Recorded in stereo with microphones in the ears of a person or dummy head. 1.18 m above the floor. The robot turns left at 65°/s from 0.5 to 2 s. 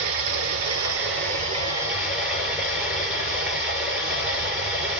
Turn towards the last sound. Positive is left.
turn(degrees=-175)